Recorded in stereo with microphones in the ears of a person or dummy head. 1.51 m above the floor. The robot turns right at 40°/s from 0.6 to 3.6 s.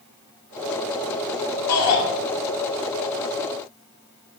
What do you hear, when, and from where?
1.7 s a shout: 85° left, 2 m; by 2.0 s 80° left, 2 m